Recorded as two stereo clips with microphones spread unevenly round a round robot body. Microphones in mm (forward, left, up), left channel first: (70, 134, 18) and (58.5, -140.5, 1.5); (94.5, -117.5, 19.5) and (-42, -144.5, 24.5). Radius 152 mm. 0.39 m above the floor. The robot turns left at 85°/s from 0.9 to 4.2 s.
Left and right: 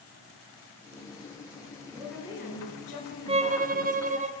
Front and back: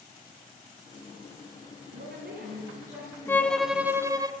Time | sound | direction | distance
1.9 | a woman speaking | 160° right | 5 m
3.3 | a violin | 45° right | 1.2 m